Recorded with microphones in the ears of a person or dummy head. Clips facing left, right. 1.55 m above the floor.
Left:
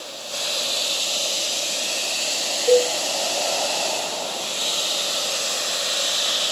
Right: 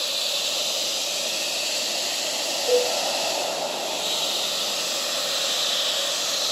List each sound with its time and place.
2.7 s a cowbell: 55° left (ahead or behind), 1.1 m